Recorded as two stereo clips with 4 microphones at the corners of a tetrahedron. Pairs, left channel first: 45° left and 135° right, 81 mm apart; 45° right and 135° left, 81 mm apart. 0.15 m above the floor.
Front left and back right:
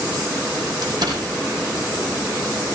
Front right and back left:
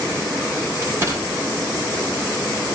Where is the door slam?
165° right, 6.5 m.